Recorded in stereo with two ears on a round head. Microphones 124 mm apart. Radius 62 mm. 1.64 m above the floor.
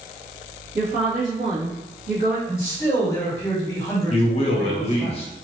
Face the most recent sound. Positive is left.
turn(degrees=50)  # may be behind; listen again after turning